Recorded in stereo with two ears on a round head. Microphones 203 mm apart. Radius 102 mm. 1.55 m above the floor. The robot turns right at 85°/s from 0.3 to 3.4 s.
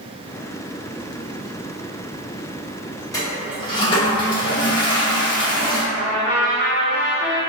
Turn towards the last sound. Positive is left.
turn(degrees=75)  # may be behind; listen again after turning